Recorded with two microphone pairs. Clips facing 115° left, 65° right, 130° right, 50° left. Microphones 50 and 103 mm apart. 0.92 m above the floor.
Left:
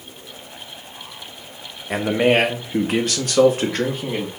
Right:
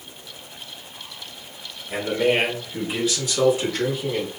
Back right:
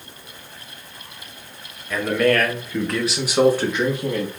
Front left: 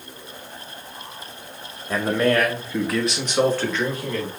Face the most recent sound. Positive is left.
turn(degrees=165)